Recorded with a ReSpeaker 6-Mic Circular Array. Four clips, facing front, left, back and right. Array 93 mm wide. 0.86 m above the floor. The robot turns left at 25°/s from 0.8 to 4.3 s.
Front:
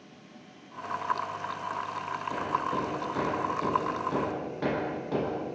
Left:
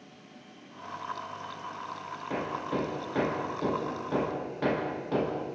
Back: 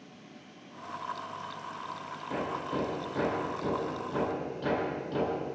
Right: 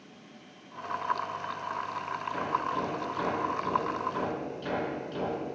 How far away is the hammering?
About 8 m.